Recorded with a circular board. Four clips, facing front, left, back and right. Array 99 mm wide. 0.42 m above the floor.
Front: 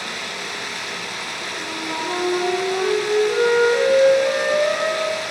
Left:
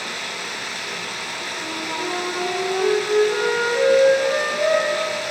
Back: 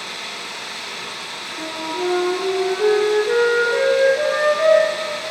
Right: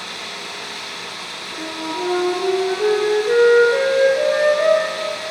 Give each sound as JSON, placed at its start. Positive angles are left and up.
{"t": 0.0, "sound": "running water", "azimuth_deg": 40, "distance_m": 5.5}
{"t": 1.6, "sound": "a flute", "azimuth_deg": -130, "distance_m": 6.5}